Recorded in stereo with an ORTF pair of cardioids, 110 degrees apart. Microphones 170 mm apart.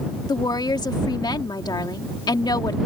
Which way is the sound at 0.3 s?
25° left.